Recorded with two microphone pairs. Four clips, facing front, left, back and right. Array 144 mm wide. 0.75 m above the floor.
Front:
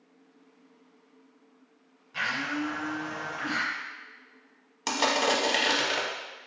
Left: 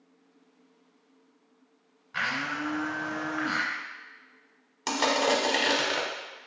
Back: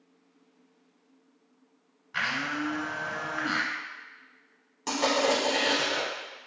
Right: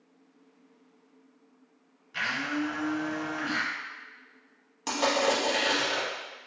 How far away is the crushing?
About 0.7 m.